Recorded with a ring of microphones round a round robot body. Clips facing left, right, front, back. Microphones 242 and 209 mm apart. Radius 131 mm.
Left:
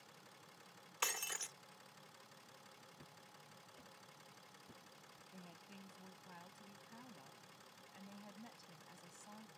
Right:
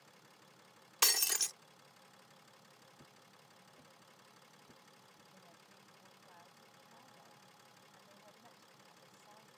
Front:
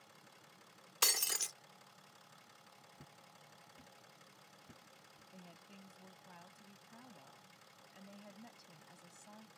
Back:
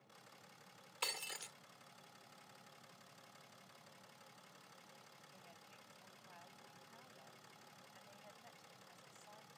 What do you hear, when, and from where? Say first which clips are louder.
1.0 s breaking glass: right 5 dB, front 5 dB; 50° right
3.0 s footsteps: even, front 3 dB; 5° right; by 5.2 s 5° left
5.3 s a woman speaking: left 9 dB, front 9 dB; 40° left